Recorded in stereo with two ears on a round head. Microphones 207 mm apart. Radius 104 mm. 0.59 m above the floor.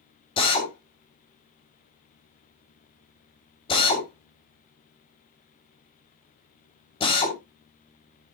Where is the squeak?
I don't hear a squeak.